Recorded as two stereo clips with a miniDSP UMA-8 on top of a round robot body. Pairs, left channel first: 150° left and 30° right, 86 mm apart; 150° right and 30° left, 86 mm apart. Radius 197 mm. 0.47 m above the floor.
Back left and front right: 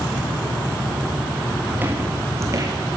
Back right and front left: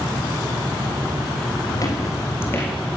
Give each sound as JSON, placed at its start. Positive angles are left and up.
{"t": 1.7, "sound": "footsteps", "azimuth_deg": -105, "distance_m": 1.9}